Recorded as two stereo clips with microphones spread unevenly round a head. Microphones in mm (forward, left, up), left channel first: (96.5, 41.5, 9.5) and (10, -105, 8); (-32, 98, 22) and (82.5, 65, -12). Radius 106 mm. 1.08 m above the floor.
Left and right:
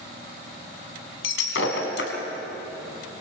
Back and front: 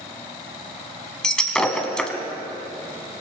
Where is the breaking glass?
85° left, 2.5 m.